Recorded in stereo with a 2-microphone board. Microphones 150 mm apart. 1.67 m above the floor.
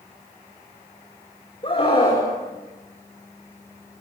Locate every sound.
1.6 s a scream: 40° left (ahead or behind), 5.5 m